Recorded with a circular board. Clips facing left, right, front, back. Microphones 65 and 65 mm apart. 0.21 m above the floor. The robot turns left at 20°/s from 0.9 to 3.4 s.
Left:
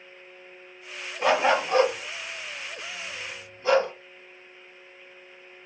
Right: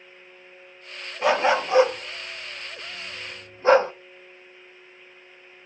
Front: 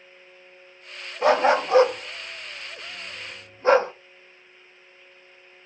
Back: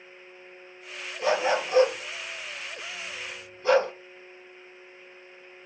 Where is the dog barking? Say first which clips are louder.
Right 1 dB, front 6 dB; 5° right, 0.5 m; by 3.9 s 45° right, 0.5 m.